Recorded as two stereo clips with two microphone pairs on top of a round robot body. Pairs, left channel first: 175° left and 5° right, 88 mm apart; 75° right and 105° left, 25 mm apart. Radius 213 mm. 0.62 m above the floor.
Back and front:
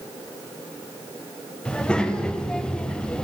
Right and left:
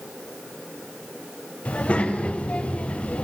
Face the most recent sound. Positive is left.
turn(degrees=-105)